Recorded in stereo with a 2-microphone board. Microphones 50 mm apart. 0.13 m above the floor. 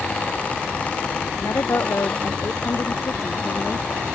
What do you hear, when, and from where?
1.4 s a woman speaking: 80° left